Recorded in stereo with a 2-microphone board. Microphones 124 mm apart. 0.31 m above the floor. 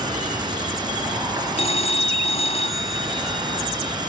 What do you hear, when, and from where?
0.0 s an insect: 35° right (ahead or behind)
1.6 s a phone ringing: 60° left (ahead or behind)